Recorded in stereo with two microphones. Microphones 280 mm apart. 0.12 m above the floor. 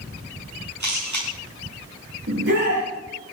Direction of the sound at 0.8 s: 85° right.